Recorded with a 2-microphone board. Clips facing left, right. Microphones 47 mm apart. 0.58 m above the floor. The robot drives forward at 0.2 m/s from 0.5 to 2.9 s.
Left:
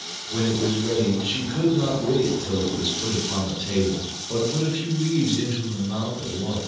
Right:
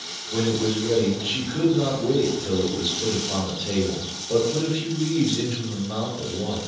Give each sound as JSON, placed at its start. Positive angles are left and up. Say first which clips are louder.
{"t": 0.3, "sound": "a man speaking", "louder": "even", "side_deg": -5, "distance_m": 1.1}